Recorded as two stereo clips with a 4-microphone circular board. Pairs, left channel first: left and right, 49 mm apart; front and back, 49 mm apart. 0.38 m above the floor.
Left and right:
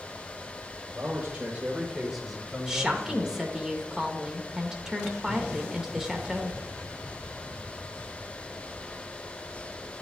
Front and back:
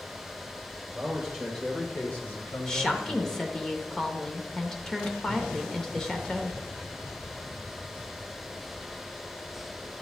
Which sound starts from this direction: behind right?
A man speaking, at 0.9 s.